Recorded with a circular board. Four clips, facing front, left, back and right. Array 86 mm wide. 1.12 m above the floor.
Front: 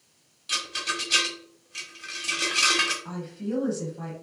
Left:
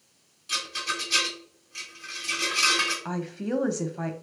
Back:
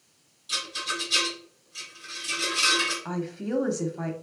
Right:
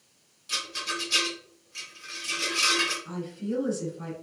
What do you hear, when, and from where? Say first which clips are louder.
0.5 s a rattle: left 2 dB, front 1 dB; 10° left, 1.5 m
3.0 s a woman speaking: left 3 dB, back 2 dB; 115° left, 0.7 m